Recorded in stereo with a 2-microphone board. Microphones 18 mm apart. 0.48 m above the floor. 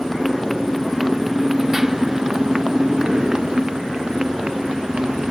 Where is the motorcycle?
5° left (ahead or behind); by 5.3 s 65° right (ahead or behind).